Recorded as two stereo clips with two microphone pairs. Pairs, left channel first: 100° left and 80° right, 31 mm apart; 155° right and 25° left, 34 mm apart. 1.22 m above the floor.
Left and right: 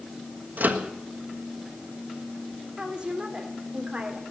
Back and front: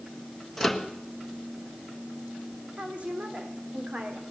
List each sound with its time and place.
0.6 s a microwave: 70° right, 1.4 m
2.8 s a woman speaking: 20° right, 3 m